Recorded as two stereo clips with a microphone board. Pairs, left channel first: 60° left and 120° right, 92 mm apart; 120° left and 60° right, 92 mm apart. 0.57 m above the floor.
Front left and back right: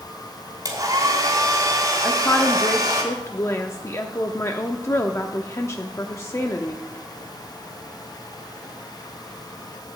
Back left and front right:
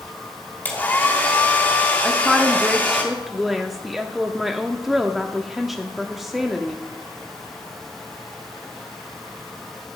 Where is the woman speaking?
25° left, 0.7 m.